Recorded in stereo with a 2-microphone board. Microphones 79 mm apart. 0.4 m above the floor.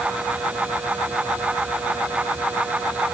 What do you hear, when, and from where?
Only background noise.